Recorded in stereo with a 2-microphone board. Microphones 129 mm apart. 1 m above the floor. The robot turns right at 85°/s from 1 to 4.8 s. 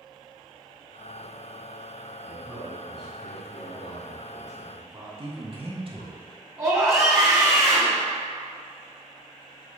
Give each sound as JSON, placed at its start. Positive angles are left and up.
{"t": 2.3, "sound": "a man speaking", "azimuth_deg": -15, "distance_m": 2.5}
{"t": 5.2, "sound": "a man speaking", "side_deg": -45, "distance_m": 1.7}
{"t": 6.6, "sound": "a scream", "side_deg": -25, "distance_m": 2.5}